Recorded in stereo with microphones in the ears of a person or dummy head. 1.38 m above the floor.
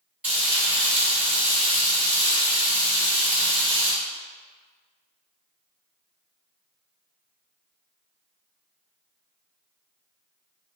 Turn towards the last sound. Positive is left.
turn(degrees=-10)  # may be behind; listen again after turning